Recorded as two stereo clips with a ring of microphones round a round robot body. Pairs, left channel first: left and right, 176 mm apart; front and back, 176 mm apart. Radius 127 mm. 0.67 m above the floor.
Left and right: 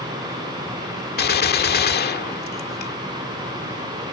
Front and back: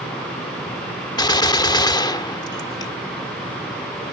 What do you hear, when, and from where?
1.2 s a gunshot: 65° left